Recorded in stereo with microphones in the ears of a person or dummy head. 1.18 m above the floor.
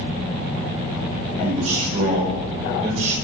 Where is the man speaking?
40° right (ahead or behind), 6 m.